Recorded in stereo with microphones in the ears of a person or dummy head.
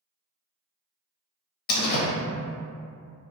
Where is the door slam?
55° left (ahead or behind), 0.7 m.